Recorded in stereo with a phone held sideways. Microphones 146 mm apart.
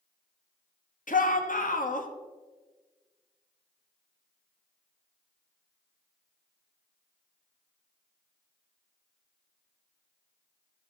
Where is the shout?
65° left (ahead or behind), 1.2 m.